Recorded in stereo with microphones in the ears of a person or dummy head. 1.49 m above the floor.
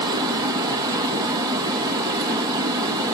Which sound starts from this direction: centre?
Running water, at 0.0 s.